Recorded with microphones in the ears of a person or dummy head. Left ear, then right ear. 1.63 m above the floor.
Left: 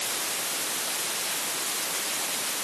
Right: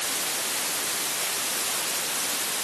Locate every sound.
Only background noise.